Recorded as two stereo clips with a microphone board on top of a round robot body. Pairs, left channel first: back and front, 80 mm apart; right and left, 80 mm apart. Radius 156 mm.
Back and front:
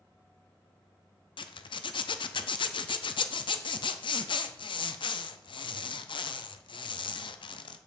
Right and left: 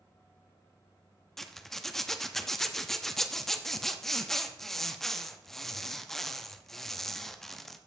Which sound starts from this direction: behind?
A zipper, at 1.4 s.